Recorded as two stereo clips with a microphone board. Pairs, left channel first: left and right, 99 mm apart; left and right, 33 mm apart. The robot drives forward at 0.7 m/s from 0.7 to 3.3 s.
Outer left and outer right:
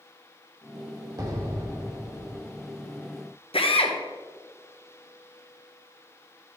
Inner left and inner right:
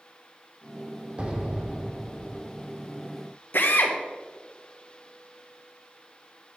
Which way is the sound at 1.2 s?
40° right (ahead or behind).